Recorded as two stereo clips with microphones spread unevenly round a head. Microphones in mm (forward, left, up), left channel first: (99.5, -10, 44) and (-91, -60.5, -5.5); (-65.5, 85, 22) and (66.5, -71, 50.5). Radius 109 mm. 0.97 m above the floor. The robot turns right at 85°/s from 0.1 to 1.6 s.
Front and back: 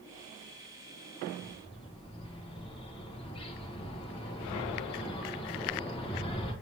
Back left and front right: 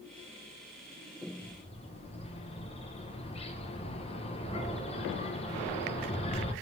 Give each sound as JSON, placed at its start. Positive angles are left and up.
{"t": 1.4, "sound": "a bird", "azimuth_deg": 70, "distance_m": 0.7}